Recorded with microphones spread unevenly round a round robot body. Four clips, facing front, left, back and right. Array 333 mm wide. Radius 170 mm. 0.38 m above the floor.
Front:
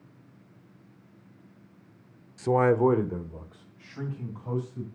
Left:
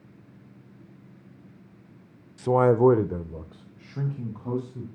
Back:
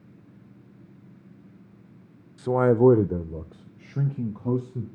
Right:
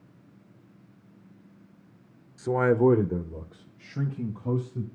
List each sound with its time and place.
2.4 s a man speaking: 45° left, 0.8 m; by 4.8 s 170° right, 3 m